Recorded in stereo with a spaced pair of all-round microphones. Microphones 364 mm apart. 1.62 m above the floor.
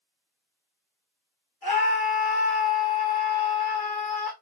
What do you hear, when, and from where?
1.6 s a scream: 70° left (ahead or behind), 1.5 m